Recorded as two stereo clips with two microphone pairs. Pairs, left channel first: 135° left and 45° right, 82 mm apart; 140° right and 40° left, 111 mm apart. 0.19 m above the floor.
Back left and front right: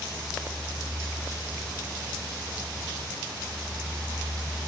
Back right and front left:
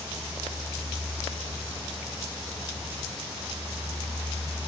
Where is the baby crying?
I don't hear a baby crying.